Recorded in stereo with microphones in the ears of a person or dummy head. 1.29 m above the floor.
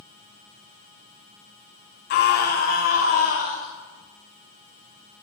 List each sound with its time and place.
2.1 s a scream: 50° left (ahead or behind), 2.5 m; by 3.7 s 45° left (ahead or behind), 3 m